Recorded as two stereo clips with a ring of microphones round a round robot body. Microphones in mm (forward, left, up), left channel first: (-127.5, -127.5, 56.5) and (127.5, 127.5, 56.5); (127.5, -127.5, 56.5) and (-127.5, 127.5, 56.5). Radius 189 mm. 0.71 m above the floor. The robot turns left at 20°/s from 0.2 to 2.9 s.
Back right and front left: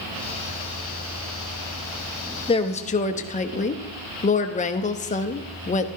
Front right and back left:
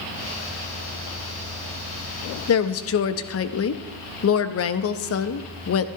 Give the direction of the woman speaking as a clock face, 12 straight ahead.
2 o'clock.